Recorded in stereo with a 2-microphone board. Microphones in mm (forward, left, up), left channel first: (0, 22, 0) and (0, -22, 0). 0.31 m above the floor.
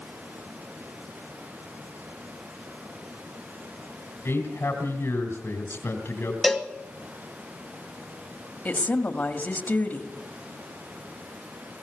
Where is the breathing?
I don't hear breathing.